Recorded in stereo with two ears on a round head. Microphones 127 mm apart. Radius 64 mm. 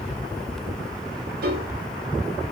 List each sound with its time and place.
1.4 s a piano: 70° right (ahead or behind), 0.8 m